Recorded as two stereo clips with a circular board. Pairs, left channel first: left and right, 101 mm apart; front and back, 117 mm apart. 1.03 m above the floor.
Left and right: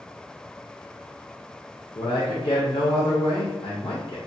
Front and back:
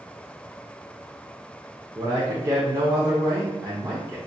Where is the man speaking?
120° left, 0.5 m.